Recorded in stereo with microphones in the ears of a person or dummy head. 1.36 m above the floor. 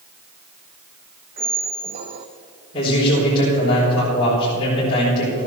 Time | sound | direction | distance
1.4 | a squeak | 25° right (ahead or behind) | 0.6 m
2.7 | a man speaking | 30° left (ahead or behind) | 4.5 m